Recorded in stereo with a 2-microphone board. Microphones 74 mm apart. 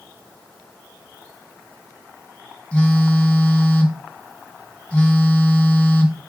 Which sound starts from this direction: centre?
A phone buzzing, at 2.7 s.